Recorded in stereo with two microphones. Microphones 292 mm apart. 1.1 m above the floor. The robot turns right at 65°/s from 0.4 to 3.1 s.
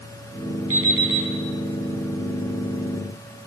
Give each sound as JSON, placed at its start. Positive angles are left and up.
{"t": 0.7, "sound": "an alarm clock", "azimuth_deg": 75, "distance_m": 5.0}